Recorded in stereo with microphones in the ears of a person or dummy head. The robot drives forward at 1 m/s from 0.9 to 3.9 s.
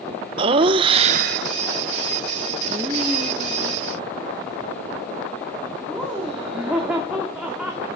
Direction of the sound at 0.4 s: 35° right (ahead or behind).